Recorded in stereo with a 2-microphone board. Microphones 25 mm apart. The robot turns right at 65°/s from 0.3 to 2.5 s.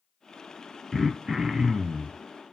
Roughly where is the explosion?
No explosion in this recording.